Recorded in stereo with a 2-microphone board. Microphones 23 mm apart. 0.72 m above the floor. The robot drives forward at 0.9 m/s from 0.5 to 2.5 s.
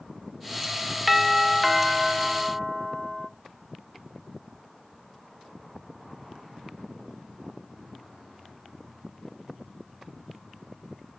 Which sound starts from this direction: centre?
A doorbell, at 1.1 s.